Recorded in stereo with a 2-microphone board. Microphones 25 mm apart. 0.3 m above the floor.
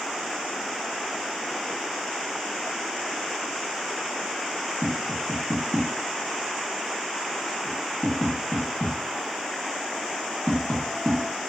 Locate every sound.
4.8 s tapping: 10° left (ahead or behind), 2 m